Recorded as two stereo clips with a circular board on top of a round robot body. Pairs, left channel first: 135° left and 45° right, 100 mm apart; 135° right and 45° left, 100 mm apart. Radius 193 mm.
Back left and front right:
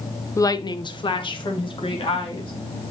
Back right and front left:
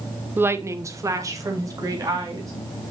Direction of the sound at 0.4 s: 100° left.